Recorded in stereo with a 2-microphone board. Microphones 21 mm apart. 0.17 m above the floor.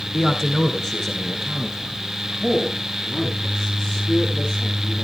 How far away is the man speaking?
About 1.8 m.